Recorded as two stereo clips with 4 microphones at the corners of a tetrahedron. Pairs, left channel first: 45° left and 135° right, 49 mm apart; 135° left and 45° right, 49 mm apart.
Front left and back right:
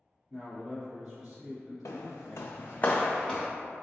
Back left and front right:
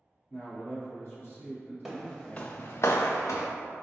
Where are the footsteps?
40° left, 0.7 m; by 3.5 s 135° left, 0.8 m.